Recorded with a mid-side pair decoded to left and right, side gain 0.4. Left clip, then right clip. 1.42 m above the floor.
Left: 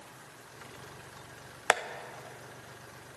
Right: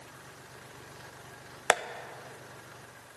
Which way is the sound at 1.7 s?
20° right.